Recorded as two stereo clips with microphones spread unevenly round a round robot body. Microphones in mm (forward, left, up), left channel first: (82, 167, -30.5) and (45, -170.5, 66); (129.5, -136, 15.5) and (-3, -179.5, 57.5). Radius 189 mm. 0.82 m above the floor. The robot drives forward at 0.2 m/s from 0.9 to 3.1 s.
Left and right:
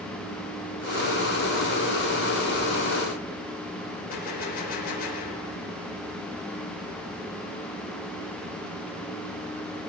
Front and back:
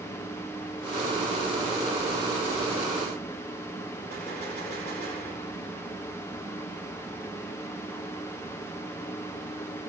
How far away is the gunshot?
About 4 m.